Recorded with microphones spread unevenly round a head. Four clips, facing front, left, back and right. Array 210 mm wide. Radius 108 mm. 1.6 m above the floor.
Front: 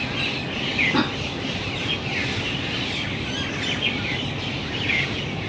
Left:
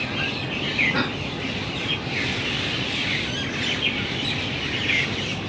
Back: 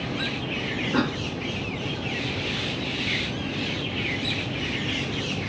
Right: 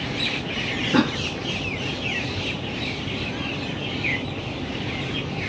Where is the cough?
70° right, 0.6 m.